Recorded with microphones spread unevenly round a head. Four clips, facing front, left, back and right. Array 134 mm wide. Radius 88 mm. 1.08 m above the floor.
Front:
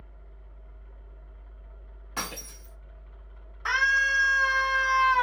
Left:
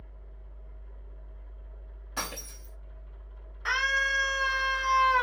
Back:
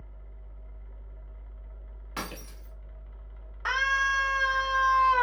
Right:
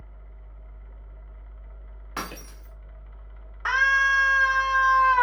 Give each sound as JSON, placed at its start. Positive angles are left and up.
{"t": 0.0, "sound": "a fan", "azimuth_deg": -85, "distance_m": 1.1}
{"t": 2.2, "sound": "breaking glass", "azimuth_deg": -145, "distance_m": 1.2}
{"t": 3.6, "sound": "a scream", "azimuth_deg": -140, "distance_m": 1.0}